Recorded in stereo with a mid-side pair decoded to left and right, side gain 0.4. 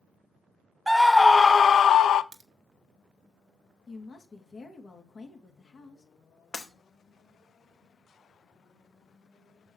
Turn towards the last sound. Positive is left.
turn(degrees=45)